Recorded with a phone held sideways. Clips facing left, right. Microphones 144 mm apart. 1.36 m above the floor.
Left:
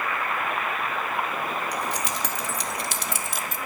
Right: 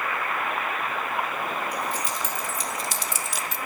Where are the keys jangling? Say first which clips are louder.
Even; 75° left (ahead or behind), 2.5 m; by 3.6 s 50° left (ahead or behind), 1.1 m.